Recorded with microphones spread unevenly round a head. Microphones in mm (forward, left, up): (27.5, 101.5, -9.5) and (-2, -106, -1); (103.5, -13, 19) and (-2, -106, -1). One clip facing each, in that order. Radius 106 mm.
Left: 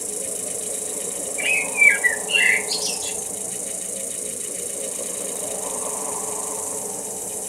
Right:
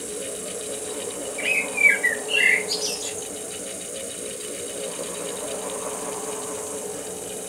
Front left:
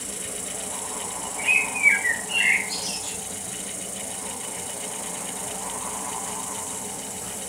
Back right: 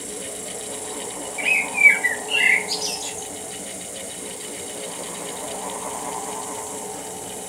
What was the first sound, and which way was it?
An insect, 140° left.